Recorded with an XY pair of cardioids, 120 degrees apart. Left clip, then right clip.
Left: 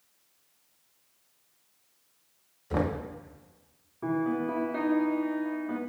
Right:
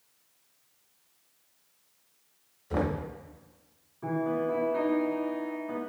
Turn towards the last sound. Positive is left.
turn(degrees=35)